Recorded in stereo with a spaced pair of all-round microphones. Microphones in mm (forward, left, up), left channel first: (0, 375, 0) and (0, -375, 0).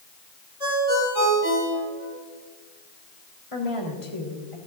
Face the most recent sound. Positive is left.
turn(degrees=40)  # may be behind; listen again after turning